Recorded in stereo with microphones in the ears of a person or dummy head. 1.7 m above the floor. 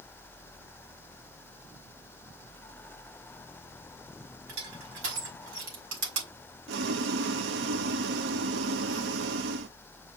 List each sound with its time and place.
4.5 s crushing: 75° right (ahead or behind), 5 m
6.7 s boiling: 70° right (ahead or behind), 0.8 m